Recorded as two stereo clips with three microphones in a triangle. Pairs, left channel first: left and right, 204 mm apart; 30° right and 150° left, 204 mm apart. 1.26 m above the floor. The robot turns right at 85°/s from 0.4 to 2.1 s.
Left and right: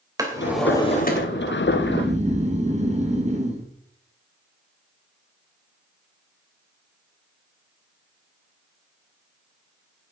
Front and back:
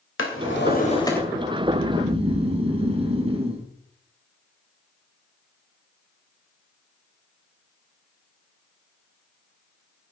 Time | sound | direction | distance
0.2 | a drawer | 15° right | 3 m
1.6 | snoring | 170° left | 1.8 m